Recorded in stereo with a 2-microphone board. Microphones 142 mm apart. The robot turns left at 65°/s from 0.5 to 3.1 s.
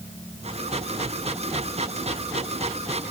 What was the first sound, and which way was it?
Only background noise.